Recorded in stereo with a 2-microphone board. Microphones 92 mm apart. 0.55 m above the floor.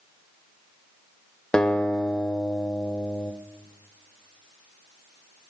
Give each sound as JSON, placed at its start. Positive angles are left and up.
{"t": 1.5, "sound": "a guitar", "side_deg": 10, "distance_m": 0.6}